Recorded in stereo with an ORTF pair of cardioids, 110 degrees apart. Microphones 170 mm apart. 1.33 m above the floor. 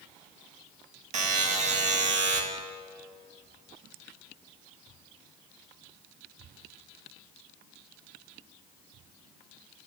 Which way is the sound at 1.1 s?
45° right.